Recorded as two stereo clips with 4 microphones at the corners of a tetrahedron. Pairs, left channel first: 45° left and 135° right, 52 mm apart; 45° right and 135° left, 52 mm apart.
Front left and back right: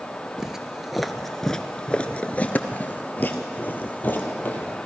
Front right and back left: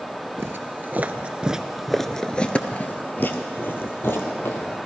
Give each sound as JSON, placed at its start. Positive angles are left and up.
{"t": 0.4, "sound": "footsteps", "azimuth_deg": 150, "distance_m": 0.9}